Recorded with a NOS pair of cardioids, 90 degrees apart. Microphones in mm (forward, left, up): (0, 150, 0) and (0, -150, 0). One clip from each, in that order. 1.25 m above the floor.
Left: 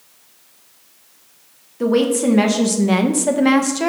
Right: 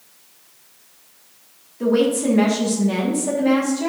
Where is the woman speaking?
30° left, 1.6 m; by 3.9 s 75° left, 1.4 m.